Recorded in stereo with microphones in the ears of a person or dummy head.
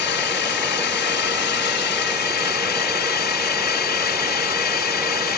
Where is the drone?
50° left (ahead or behind); by 5.4 s 45° left (ahead or behind).